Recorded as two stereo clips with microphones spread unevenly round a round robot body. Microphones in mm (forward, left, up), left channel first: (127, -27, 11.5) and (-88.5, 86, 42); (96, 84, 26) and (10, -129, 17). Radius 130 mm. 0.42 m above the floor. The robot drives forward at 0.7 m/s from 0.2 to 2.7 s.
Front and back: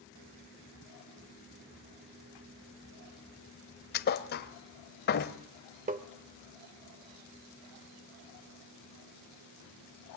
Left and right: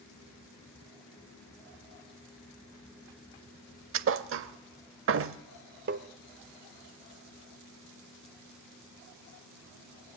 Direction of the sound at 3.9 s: 80° right.